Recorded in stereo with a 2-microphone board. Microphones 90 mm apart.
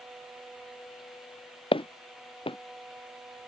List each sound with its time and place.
1.7 s footsteps: 75° left (ahead or behind)